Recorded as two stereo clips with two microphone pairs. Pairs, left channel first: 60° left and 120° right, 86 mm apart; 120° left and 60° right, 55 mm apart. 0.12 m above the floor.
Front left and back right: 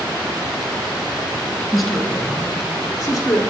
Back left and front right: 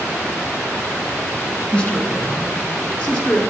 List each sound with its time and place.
1.7 s a man speaking: 150° left, 1.2 m; by 3.4 s 65° left, 1.6 m